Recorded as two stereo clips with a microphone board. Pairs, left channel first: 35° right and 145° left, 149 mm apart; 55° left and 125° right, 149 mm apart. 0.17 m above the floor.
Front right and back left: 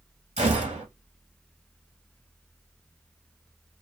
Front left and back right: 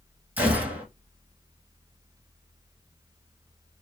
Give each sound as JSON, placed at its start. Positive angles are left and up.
{"t": 0.4, "sound": "a gunshot", "azimuth_deg": 160, "distance_m": 1.1}